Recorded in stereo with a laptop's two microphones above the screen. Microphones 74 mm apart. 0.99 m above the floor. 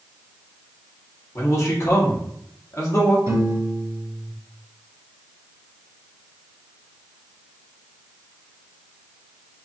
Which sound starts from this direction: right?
A piano, at 3.3 s.